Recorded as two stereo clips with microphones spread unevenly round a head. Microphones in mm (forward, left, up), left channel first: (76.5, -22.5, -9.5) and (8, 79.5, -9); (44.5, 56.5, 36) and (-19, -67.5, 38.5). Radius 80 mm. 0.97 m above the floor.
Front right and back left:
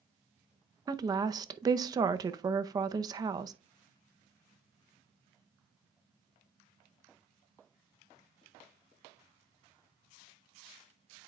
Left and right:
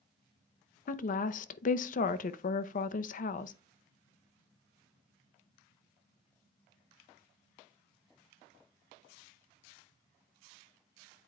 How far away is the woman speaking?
About 0.6 m.